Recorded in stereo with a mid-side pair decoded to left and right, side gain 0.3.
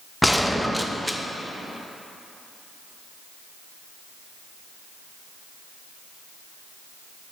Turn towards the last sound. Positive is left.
turn(degrees=10)